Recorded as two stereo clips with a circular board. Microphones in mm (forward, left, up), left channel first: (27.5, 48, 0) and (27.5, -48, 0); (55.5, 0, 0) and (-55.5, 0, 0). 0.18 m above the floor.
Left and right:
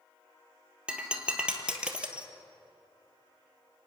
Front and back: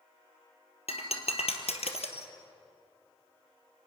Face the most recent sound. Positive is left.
turn(degrees=-10)